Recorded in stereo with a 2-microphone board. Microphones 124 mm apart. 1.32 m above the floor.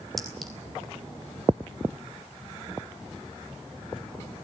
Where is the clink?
Centre (ahead or behind), 3.5 m.